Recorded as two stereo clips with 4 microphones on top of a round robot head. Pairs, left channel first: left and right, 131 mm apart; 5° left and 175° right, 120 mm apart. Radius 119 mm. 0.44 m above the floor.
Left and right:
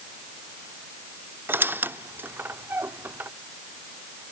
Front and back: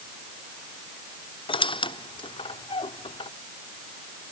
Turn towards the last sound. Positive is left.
turn(degrees=-20)